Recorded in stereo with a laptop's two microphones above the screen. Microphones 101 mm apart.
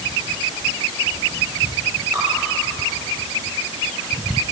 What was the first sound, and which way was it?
Dripping, 35° right (ahead or behind).